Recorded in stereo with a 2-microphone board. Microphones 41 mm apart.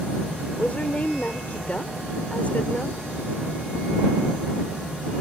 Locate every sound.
0.6 s a woman speaking: 35° left (ahead or behind)